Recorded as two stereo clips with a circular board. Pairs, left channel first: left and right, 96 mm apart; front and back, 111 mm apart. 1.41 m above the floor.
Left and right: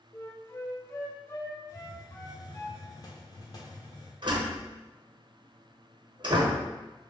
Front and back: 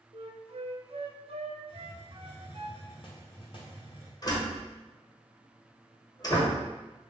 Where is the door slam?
50° right, 0.9 m.